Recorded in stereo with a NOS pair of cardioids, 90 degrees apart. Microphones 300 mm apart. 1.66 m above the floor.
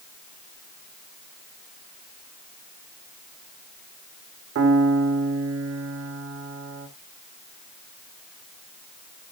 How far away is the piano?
About 2.5 m.